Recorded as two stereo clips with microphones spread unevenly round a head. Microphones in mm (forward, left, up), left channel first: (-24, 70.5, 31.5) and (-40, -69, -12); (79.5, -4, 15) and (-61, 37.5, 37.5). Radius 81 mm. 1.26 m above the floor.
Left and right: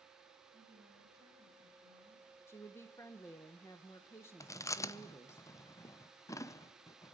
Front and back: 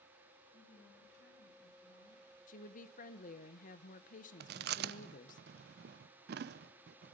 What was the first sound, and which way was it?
A woman speaking, 25° right.